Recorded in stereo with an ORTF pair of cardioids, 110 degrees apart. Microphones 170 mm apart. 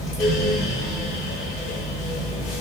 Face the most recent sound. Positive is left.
turn(degrees=55)